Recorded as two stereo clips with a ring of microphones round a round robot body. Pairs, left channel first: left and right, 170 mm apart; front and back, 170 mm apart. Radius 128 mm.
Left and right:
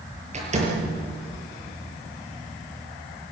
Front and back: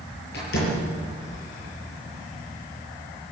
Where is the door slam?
40° right, 7 m.